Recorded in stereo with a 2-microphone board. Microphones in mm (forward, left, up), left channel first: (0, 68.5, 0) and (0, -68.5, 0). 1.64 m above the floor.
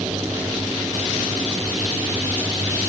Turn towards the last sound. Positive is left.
No sound to turn to.